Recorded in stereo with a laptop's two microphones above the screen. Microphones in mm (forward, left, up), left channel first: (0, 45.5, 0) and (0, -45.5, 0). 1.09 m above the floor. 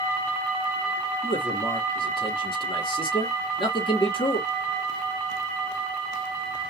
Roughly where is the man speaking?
Left.